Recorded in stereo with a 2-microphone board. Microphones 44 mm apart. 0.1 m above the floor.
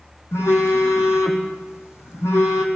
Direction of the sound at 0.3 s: 75° left (ahead or behind).